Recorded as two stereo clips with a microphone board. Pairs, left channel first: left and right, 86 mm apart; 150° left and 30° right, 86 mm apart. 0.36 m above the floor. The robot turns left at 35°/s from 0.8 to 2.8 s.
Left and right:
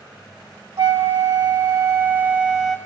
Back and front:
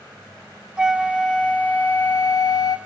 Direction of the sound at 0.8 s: 110° right.